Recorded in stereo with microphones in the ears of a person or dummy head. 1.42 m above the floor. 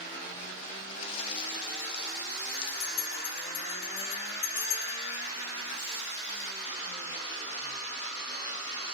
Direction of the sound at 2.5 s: 25° left (ahead or behind).